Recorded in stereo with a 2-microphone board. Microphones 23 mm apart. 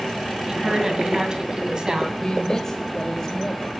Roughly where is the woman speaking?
Right.